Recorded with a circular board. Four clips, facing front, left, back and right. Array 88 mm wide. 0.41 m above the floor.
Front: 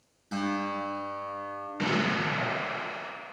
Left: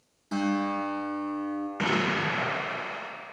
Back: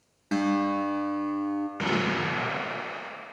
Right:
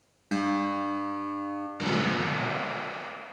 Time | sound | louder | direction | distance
0.3 | a guitar | even, back 6 dB | 140° right | 1.1 m
1.8 | an explosion | even, front 3 dB | 120° left | 1.3 m